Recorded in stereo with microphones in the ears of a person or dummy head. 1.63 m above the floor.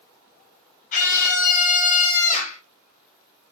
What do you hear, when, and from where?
0.9 s a scream: 40° left (ahead or behind), 1.3 m